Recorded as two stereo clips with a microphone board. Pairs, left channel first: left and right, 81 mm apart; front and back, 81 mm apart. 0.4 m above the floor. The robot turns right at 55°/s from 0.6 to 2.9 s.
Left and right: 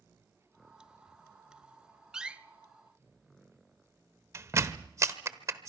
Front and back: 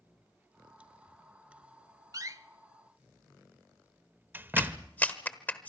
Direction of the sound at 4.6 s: 60° right.